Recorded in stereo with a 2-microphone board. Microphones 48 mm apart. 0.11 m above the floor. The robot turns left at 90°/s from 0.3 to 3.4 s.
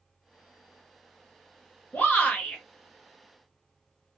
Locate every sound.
1.9 s a shout: 80° left, 1.3 m; by 2.6 s 20° left, 1.3 m